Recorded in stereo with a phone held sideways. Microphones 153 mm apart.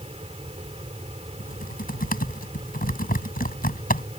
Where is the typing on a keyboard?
70° left (ahead or behind).